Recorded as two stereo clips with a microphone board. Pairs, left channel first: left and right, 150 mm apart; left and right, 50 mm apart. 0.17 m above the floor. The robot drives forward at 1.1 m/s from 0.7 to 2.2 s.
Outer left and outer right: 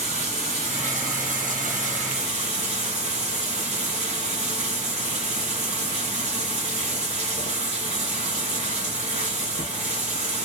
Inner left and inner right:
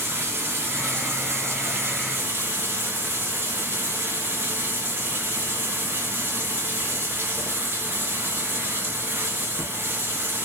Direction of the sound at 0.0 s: 50° right (ahead or behind).